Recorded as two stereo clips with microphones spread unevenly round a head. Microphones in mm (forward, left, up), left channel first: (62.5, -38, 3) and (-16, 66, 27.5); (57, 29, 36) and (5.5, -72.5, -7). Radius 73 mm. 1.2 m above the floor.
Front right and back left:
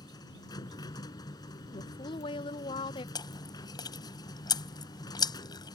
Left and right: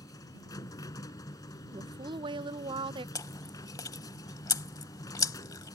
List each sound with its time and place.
0.0 s a machine running: 10° left
1.7 s a woman speaking: 100° right
3.1 s chewing: 5° left